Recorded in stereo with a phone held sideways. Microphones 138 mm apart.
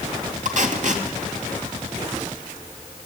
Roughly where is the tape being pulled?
Right.